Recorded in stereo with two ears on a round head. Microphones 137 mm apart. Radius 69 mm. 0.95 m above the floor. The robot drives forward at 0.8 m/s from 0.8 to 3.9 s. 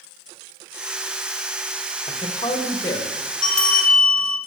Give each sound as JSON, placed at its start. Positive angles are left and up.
{"t": 2.1, "sound": "a man speaking", "side_deg": 35, "distance_m": 1.2}
{"t": 3.4, "sound": "a bell", "side_deg": 5, "distance_m": 1.4}